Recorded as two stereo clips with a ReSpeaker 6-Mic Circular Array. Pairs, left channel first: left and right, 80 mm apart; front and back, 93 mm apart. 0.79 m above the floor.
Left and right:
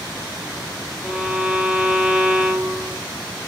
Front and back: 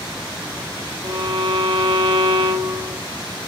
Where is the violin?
175° right, 2.5 m.